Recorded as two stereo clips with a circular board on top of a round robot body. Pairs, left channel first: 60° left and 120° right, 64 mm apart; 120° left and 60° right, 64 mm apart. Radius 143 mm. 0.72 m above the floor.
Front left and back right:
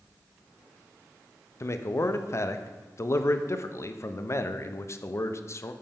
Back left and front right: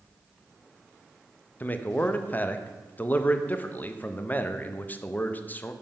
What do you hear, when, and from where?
1.6 s a man speaking: 65° left, 0.7 m